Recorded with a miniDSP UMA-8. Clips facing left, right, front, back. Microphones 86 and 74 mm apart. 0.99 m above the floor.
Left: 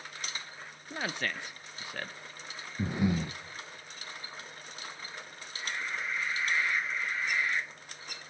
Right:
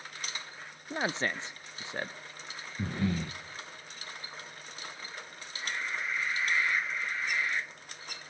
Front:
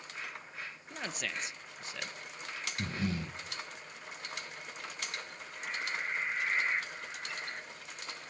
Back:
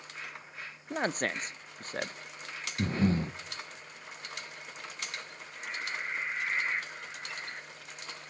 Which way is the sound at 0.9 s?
150° right.